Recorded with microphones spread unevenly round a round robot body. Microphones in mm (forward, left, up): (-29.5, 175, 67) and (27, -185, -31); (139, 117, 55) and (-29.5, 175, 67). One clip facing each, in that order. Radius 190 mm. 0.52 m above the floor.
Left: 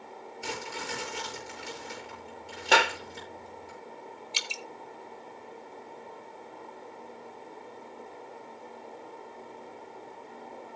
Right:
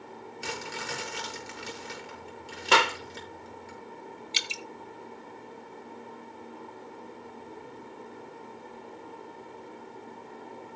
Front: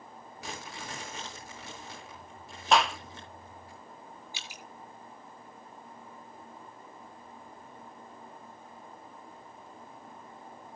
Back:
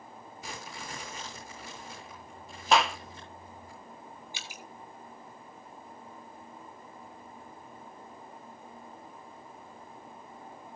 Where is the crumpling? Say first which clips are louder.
Left 1 dB, front 1 dB; 60° right, 8 m.